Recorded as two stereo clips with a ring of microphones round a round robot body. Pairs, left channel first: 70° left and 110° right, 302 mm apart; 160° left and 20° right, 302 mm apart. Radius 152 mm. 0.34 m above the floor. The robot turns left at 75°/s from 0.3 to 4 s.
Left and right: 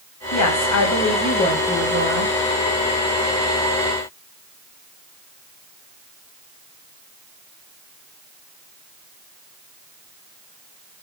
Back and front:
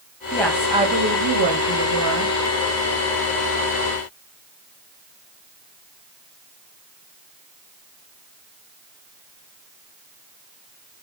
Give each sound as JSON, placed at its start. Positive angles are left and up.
{"t": 0.3, "sound": "a woman speaking", "azimuth_deg": 85, "distance_m": 2.0}